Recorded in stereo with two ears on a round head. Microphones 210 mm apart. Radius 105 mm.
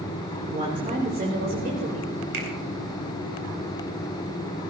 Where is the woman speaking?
30° right (ahead or behind), 3 m; by 2.1 s 50° right (ahead or behind), 4 m.